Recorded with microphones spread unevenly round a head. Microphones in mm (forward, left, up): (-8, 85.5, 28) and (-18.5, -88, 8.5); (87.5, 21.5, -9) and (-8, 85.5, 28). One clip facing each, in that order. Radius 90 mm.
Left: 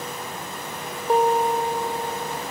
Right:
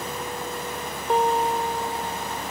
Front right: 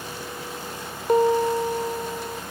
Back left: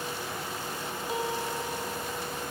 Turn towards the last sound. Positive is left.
turn(degrees=10)